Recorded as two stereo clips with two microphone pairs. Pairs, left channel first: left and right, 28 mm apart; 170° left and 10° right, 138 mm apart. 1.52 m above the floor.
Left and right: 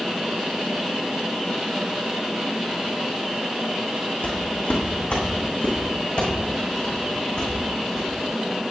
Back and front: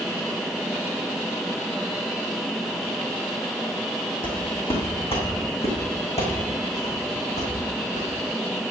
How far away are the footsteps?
About 3.5 m.